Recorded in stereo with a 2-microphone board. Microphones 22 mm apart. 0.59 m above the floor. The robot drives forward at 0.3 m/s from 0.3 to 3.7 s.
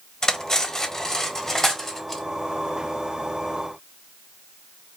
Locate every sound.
0.2 s cutlery clinking: 30° left (ahead or behind), 0.6 m; by 2.2 s 15° left (ahead or behind), 1.1 m